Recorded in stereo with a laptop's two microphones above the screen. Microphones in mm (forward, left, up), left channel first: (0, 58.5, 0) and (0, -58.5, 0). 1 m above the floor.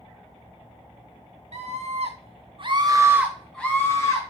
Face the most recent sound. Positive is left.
turn(degrees=30)  # may be behind; listen again after turning